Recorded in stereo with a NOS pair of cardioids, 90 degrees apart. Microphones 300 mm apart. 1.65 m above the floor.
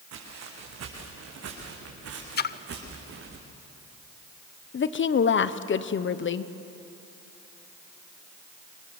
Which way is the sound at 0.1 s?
65° right.